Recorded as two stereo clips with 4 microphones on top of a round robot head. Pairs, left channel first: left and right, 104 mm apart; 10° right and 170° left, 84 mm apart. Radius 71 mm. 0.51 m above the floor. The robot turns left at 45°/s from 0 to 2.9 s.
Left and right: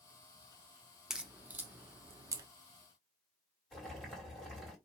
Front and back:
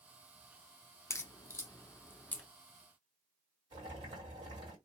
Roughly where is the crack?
Ahead.